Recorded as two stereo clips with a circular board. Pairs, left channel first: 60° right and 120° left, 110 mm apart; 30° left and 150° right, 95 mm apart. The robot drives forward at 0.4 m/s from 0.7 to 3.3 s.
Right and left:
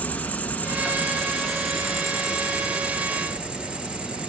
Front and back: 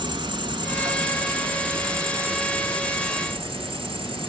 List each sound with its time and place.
0.0 s an insect: 130° right, 1.0 m; by 4.3 s 160° right, 1.8 m